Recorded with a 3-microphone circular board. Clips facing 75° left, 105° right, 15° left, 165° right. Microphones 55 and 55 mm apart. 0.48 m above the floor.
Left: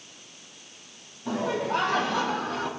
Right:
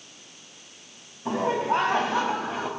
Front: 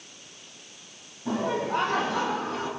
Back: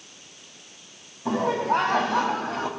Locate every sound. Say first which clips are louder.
1.2 s laughter: right 3 dB, back 4 dB; 155° right, 4 m; by 2.7 s 170° right, 3.5 m